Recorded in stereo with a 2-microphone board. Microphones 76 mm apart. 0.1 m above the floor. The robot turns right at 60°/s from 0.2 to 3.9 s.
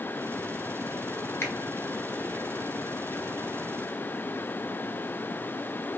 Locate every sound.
1.4 s a finger snap: 35° left (ahead or behind), 1.1 m; by 1.5 s 40° left (ahead or behind), 1.1 m